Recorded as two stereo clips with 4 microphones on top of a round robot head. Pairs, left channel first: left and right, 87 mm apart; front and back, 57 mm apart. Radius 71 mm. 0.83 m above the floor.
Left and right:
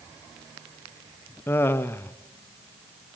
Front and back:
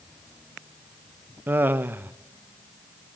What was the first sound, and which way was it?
Laughter, 145° left.